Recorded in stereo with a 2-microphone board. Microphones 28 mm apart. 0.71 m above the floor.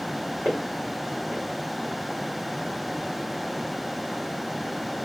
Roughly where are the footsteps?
Right.